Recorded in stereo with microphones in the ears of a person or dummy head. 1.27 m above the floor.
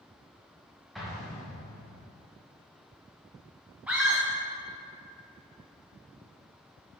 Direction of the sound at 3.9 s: 10° right (ahead or behind).